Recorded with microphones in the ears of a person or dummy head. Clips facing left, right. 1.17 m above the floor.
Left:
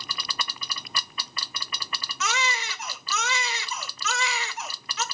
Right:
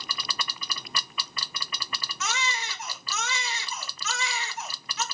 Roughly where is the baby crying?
Left.